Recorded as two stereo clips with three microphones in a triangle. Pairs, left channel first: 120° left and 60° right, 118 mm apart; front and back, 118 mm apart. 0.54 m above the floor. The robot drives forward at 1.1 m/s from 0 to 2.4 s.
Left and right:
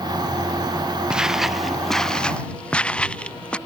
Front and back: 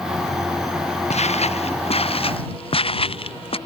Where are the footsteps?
25° left; by 3.6 s 40° left.